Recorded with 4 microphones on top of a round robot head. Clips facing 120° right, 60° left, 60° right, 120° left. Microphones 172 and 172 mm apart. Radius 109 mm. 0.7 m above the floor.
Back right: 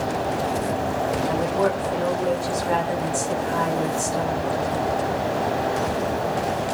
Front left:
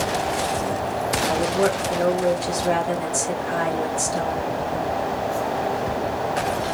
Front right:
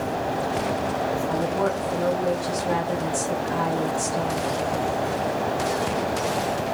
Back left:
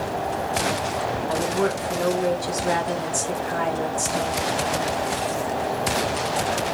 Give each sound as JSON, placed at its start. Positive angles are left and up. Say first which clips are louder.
{"t": 1.3, "sound": "a woman speaking", "louder": "front left 3 dB, back left 4 dB", "azimuth_deg": 105, "distance_m": 3.0}